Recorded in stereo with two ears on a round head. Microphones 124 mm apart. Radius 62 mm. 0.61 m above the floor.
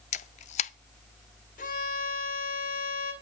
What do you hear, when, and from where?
0.1 s a camera shutter: 50° left (ahead or behind), 0.5 m
1.6 s a violin: 60° left (ahead or behind), 2.5 m